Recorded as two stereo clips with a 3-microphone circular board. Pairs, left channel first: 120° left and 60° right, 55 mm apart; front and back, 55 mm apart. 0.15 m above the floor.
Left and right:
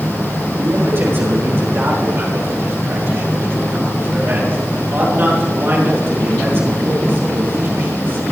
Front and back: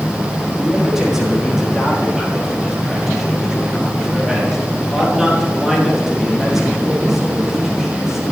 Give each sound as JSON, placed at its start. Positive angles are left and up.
{"t": 0.6, "sound": "a man speaking", "azimuth_deg": -100, "distance_m": 4.5}